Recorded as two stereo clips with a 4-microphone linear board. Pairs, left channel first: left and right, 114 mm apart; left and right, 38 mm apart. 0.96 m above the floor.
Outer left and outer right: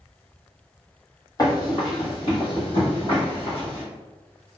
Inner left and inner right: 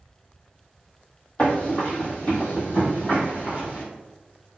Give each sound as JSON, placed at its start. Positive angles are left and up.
{"t": 1.4, "sound": "running footsteps", "side_deg": 35, "distance_m": 1.2}